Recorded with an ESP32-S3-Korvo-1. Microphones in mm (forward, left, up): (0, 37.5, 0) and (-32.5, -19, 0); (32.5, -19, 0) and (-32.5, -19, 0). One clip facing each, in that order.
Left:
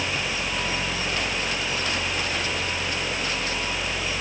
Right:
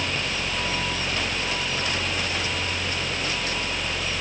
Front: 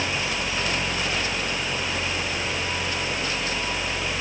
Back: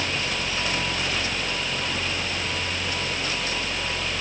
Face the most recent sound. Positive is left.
No sound to turn to.